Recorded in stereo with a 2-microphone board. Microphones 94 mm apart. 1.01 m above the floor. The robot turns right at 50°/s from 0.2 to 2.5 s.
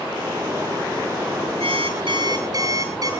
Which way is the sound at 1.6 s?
85° right.